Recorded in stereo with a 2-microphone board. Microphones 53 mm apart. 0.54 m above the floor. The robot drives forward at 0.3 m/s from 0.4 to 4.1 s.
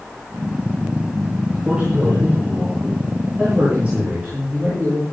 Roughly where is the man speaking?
Right.